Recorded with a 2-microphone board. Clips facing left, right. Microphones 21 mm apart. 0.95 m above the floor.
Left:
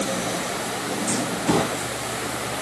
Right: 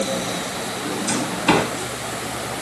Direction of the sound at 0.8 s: 65° right (ahead or behind).